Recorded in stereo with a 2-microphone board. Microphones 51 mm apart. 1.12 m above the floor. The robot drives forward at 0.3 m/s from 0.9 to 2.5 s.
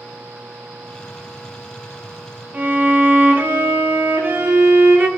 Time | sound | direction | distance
2.5 | a violin | 40° right (ahead or behind) | 0.8 m